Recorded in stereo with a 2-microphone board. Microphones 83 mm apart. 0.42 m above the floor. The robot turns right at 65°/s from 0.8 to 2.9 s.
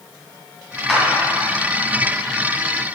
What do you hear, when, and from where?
0.9 s a clap: 5° left (ahead or behind), 2.5 m; by 1.0 s 5° right (ahead or behind), 2.5 m